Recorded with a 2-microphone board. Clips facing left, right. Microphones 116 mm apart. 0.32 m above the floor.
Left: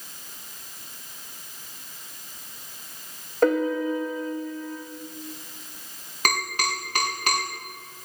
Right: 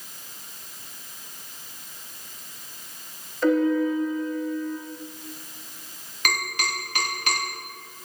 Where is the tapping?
40° left (ahead or behind), 7.5 m.